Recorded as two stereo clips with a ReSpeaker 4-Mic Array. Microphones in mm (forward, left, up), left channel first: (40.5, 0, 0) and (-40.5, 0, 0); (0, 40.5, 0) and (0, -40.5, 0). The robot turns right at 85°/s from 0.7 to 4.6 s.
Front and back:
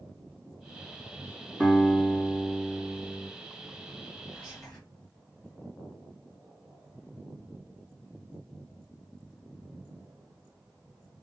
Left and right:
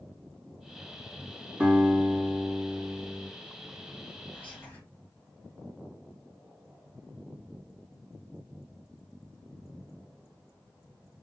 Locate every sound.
1.6 s a guitar: 55° right, 1.6 m; by 3.3 s 90° left, 1.6 m
4.3 s whispering: 60° left, 1.3 m; by 4.8 s 85° left, 1.3 m